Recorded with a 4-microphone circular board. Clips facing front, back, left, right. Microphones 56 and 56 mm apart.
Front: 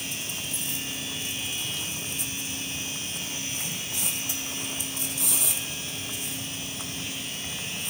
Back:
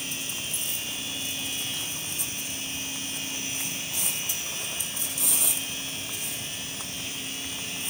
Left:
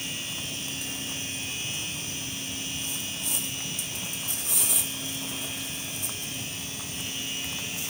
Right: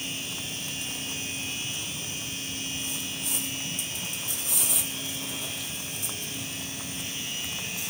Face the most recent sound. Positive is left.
No sound to turn to.